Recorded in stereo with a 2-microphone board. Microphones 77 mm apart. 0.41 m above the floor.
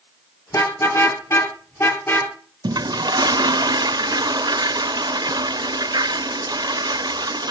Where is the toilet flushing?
65° right (ahead or behind), 0.5 m.